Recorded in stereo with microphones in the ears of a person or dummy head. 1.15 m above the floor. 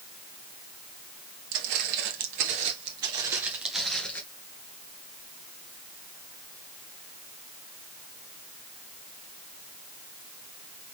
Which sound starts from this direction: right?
Footsteps, at 1.5 s.